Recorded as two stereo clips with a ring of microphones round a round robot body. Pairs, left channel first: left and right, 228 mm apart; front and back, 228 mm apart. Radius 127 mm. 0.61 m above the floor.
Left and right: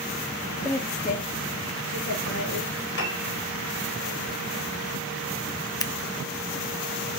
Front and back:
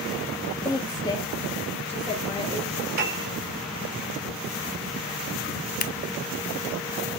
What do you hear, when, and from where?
0.7 s a woman speaking: 35° left, 1.0 m; by 2.7 s 80° left, 3 m
3.0 s a piano: 135° left, 3.5 m
5.8 s scissors: 25° left, 0.7 m